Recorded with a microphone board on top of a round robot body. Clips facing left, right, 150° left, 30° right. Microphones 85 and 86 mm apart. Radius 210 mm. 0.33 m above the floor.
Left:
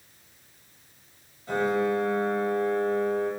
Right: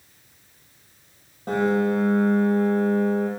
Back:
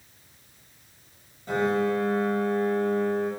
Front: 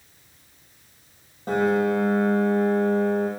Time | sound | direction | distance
1.5 | a piano | 65° right | 6 m